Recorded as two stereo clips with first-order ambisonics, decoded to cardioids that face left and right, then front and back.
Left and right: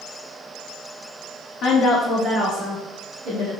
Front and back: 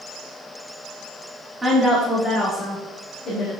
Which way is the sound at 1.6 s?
105° left.